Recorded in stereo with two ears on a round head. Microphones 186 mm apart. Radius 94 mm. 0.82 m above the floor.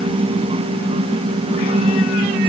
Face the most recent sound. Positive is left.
No sound to turn to.